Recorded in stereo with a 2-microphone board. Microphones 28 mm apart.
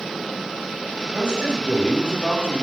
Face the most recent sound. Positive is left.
turn(degrees=-30)  # may be behind; listen again after turning